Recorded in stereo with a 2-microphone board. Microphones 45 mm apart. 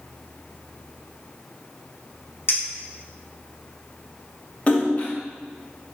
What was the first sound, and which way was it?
A clink, 65° left (ahead or behind).